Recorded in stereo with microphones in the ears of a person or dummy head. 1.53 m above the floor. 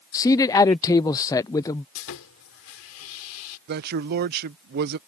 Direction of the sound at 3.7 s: 45° right (ahead or behind).